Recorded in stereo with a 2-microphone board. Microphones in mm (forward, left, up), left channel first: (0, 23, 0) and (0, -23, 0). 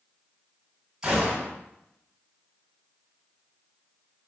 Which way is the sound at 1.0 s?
10° right (ahead or behind).